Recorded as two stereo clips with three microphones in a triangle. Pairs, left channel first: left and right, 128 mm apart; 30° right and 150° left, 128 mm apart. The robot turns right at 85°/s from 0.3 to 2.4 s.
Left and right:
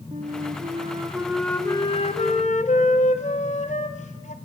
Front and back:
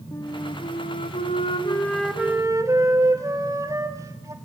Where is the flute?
90° right, 1.7 m; by 4.3 s 90° left, 1.7 m.